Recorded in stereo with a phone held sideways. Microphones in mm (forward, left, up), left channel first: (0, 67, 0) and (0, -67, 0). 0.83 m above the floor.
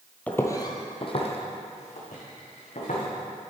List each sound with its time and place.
0.3 s footsteps: 10° left (ahead or behind), 0.9 m; by 3.0 s 70° left (ahead or behind), 3 m